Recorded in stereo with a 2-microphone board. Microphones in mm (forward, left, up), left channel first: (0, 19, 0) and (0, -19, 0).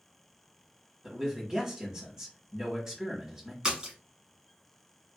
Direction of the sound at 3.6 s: 20° right (ahead or behind).